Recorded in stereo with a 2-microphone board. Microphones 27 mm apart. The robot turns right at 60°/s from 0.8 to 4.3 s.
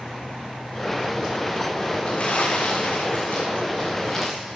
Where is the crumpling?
45° left (ahead or behind), 5 m; by 4.6 s centre (ahead or behind), 5 m.